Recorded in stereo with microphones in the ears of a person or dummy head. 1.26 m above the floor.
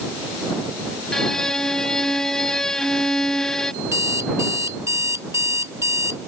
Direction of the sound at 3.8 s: 20° right (ahead or behind).